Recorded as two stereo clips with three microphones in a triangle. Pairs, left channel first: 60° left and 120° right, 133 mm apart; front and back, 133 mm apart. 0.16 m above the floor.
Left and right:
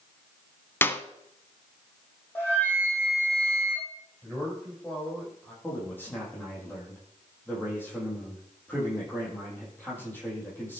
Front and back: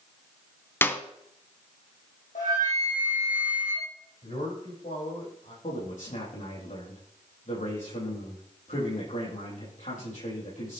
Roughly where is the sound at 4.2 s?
Ahead.